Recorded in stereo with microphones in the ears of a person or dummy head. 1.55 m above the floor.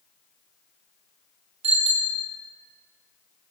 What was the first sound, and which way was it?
A bicycle bell, 35° right (ahead or behind).